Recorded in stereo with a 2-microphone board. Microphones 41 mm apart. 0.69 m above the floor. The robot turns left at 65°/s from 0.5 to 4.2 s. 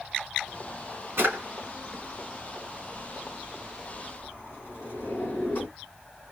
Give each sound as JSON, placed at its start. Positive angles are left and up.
{"t": 1.2, "sound": "a drawer", "side_deg": -70, "distance_m": 2.5}